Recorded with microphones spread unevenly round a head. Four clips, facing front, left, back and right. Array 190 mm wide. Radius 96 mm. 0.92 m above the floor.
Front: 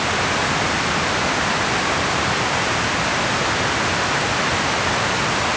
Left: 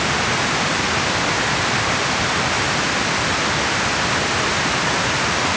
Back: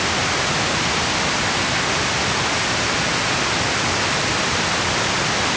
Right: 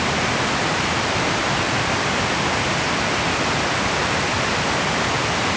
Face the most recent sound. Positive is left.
No sound to turn to.